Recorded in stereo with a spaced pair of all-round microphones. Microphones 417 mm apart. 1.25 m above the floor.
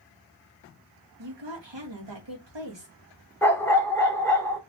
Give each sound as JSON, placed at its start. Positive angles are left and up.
{"t": 1.2, "sound": "a woman speaking", "side_deg": -90, "distance_m": 1.7}
{"t": 3.4, "sound": "a dog barking", "side_deg": 5, "distance_m": 1.0}